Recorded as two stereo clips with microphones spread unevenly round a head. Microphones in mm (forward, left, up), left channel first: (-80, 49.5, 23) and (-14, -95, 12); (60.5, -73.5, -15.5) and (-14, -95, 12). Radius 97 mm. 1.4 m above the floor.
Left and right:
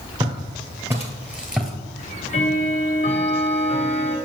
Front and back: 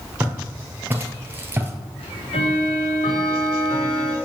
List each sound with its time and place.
0.2 s footsteps: 125° right, 2 m; by 1.7 s 160° right, 1.8 m
2.0 s ticking: 55° left, 0.8 m